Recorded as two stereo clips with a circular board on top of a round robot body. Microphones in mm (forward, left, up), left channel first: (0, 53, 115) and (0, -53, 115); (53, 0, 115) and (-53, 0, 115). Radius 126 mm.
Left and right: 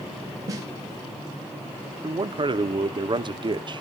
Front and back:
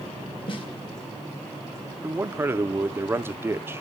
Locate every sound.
0.5 s a snare drum: 35° right, 3 m
2.0 s a man speaking: 120° right, 1.0 m